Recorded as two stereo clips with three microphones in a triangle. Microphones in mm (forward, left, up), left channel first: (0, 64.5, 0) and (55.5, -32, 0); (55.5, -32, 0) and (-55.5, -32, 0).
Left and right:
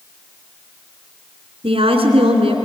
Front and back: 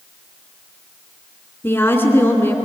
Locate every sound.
1.6 s a woman speaking: 70° right, 2.5 m